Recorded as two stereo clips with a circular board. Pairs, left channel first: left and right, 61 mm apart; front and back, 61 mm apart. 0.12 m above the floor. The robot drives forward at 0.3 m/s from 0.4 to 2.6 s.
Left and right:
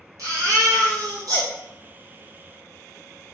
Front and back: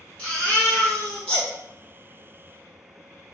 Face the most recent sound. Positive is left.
turn(degrees=-100)